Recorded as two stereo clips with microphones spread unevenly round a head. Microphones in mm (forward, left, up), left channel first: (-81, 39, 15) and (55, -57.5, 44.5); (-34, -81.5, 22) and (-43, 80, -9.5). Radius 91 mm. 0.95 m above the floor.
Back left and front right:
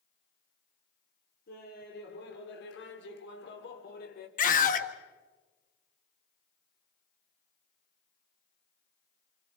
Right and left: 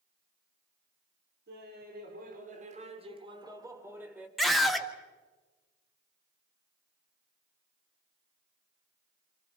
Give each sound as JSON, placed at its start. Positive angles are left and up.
{"t": 1.5, "sound": "laughter", "azimuth_deg": 110, "distance_m": 3.0}
{"t": 4.4, "sound": "a scream", "azimuth_deg": 180, "distance_m": 1.8}